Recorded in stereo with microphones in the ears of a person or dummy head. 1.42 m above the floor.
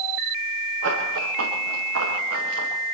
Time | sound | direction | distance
0.8 | running footsteps | 80° right | 8.5 m